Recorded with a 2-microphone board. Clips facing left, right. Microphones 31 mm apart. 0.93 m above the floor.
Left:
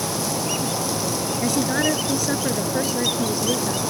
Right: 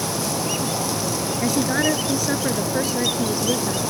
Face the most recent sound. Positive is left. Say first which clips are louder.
# right 1 dB
turn(degrees=-10)  # may be behind; listen again after turning